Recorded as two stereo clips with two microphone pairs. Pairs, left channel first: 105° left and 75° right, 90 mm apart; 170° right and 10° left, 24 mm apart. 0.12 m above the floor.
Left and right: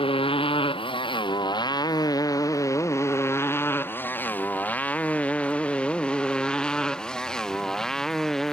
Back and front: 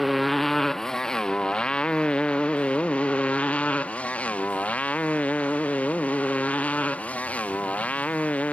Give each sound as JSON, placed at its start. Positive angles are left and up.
{"t": 0.0, "sound": "a motorcycle", "azimuth_deg": 100}